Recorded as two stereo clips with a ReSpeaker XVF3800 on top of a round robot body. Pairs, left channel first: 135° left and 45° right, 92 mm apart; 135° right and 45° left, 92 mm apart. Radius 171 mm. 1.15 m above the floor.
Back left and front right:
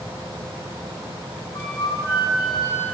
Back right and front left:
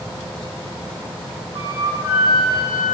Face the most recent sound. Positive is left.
turn(degrees=90)